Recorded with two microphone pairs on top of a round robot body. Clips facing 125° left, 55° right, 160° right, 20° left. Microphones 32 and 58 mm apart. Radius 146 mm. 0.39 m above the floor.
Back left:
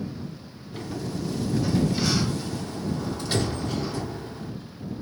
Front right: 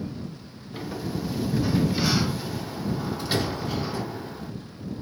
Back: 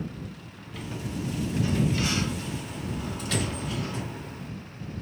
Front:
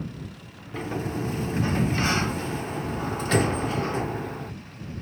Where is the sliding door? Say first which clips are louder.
Front right 1 dB, front 6 dB; 25° left.